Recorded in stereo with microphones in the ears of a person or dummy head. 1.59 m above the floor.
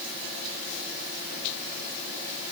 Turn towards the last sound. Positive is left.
No sound to turn to.